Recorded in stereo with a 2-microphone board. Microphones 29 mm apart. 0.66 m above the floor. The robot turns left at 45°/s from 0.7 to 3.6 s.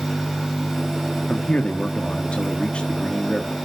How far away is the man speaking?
About 1.4 m.